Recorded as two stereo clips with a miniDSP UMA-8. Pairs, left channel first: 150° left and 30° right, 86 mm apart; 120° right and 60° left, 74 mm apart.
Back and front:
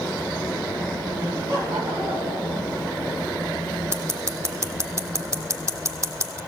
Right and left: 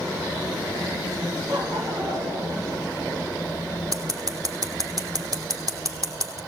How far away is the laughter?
About 5.5 m.